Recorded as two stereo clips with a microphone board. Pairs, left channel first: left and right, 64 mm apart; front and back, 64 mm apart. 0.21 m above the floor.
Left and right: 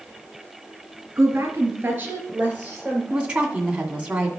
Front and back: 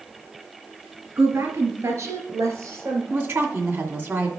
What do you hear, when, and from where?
1.2 s a woman speaking: 135° right, 2.5 m; by 3.0 s 160° right, 3.5 m
3.1 s a woman speaking: 155° right, 1.9 m